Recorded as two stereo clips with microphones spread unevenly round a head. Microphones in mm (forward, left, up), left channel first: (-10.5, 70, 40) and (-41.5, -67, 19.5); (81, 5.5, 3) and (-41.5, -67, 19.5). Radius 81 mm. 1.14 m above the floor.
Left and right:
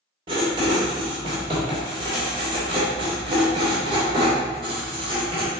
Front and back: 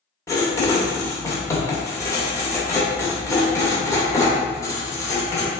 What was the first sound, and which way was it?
Writing, 40° right.